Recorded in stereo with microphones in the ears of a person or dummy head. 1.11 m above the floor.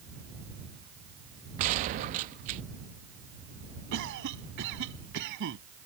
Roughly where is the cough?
Right.